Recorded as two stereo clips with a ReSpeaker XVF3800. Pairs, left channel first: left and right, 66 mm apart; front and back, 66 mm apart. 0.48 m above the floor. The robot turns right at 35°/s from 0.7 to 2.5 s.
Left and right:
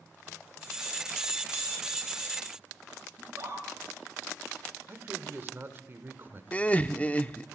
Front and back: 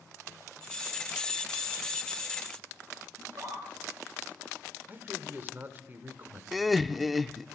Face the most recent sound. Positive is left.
turn(degrees=90)